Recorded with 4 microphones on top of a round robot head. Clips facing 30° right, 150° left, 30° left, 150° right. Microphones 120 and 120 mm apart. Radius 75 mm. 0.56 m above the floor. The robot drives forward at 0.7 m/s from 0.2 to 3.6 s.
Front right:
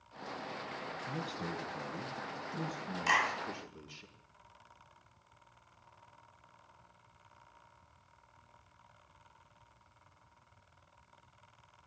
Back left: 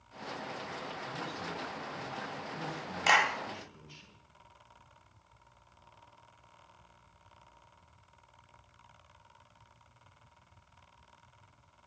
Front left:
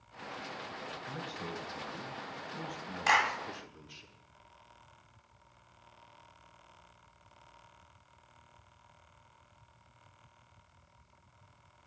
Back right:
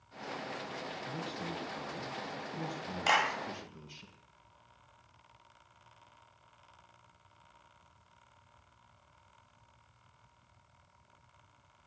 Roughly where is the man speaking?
Right.